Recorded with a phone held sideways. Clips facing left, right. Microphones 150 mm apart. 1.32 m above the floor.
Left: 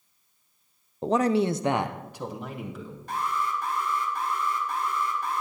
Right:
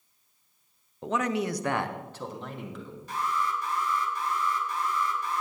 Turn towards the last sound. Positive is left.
turn(degrees=50)  # may be behind; listen again after turning